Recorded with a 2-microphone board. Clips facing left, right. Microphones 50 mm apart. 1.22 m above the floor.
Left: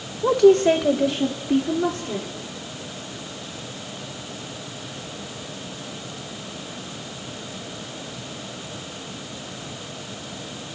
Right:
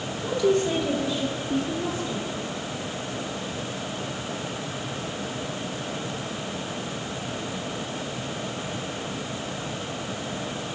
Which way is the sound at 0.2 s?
75° left (ahead or behind).